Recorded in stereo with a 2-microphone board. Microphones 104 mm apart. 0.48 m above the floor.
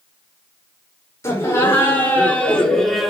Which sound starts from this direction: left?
Laughter, at 1.2 s.